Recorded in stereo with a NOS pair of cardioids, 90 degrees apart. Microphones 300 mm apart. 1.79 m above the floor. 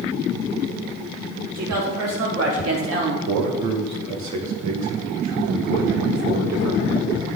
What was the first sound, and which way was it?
A woman speaking, 65° right.